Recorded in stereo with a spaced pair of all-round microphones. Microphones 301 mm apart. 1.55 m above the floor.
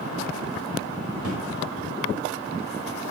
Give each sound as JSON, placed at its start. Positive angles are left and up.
{"t": 1.2, "sound": "a drawer", "side_deg": -50, "distance_m": 4.5}